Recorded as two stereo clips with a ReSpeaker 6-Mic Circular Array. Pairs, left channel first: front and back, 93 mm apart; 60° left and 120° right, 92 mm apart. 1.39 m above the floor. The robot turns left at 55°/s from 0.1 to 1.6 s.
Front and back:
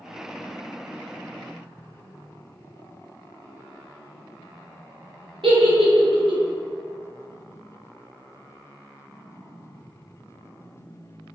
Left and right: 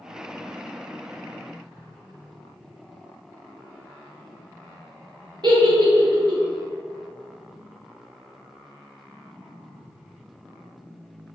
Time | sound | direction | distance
5.4 | a giggle | 155° right | 0.7 m